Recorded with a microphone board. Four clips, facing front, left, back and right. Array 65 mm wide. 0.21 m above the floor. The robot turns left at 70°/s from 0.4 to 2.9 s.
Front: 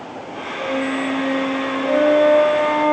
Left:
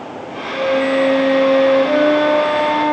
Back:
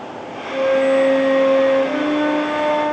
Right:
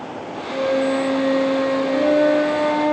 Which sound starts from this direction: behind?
A flute, at 0.5 s.